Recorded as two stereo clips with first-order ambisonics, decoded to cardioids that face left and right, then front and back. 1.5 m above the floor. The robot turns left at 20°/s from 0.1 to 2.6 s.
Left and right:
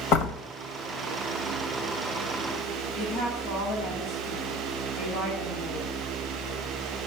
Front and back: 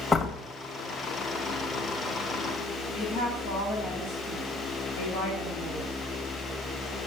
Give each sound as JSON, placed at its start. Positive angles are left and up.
{"t": 0.1, "sound": "a door slam", "azimuth_deg": 75, "distance_m": 1.7}
{"t": 2.9, "sound": "a woman speaking", "azimuth_deg": 55, "distance_m": 8.5}